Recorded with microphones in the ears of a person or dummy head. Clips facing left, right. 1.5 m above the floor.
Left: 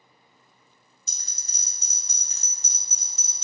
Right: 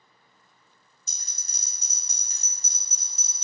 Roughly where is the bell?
Left.